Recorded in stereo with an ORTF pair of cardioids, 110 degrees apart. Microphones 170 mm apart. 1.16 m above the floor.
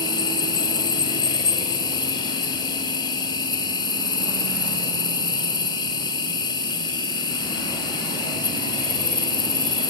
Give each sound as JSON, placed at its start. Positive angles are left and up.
{"t": 0.0, "sound": "an insect", "azimuth_deg": 25, "distance_m": 3.0}